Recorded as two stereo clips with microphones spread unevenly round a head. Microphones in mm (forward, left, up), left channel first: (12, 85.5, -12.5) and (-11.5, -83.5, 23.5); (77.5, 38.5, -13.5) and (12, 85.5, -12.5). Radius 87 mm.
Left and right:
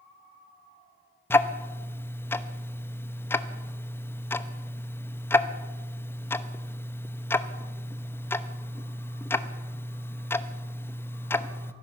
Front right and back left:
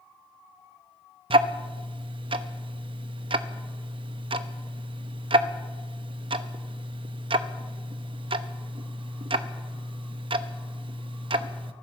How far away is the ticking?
About 0.9 m.